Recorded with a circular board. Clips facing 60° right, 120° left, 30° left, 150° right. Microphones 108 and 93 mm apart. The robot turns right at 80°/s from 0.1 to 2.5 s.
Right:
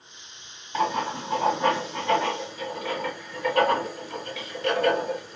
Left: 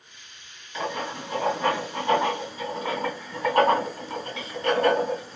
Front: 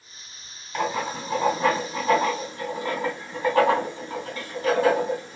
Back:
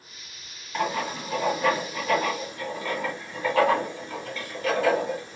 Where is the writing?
55° right, 1.7 m; by 5.4 s 85° left, 1.7 m.